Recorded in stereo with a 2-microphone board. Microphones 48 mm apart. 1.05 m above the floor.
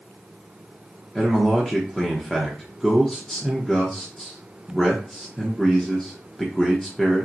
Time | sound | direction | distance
1.1 | a man speaking | 5° left (ahead or behind) | 0.8 m